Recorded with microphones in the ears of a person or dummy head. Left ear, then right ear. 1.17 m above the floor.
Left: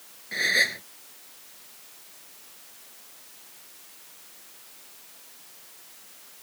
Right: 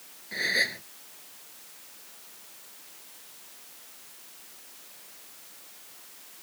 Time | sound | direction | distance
0.3 | a gasp | 15° left (ahead or behind) | ?